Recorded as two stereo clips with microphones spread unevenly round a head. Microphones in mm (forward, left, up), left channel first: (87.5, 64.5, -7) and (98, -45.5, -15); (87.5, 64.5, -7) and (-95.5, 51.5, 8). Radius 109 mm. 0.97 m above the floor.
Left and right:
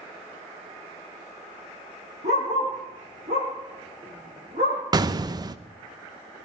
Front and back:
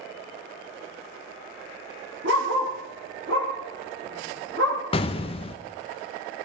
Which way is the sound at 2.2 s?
130° right.